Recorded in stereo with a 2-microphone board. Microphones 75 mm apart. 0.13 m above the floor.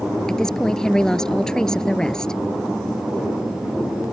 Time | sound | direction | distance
0.3 | a woman speaking | 10° left (ahead or behind) | ?